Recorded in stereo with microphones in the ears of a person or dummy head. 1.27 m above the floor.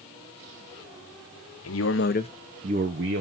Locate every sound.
1.6 s a man speaking: 65° left (ahead or behind), 1.2 m; by 3.2 s 65° right (ahead or behind), 1.3 m